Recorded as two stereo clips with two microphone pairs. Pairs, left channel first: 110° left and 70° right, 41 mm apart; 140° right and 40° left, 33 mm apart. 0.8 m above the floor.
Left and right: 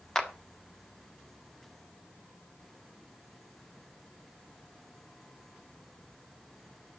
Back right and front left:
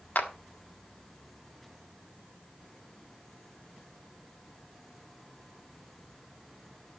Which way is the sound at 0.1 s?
175° right.